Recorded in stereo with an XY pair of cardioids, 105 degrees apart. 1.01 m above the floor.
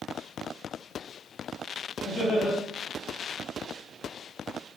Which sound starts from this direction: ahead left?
Laughter, at 2.0 s.